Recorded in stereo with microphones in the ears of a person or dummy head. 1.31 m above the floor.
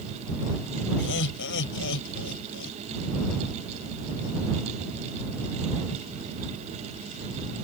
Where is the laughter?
65° left (ahead or behind); by 2.8 s 70° left (ahead or behind).